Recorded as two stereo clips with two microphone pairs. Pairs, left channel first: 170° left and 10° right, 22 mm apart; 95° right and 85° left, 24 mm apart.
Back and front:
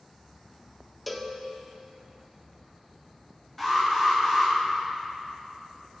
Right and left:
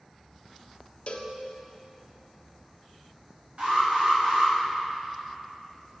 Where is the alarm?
85° left, 2.5 m.